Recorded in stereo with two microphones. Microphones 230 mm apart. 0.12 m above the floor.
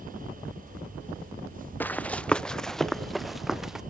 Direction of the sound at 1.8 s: 5° left (ahead or behind).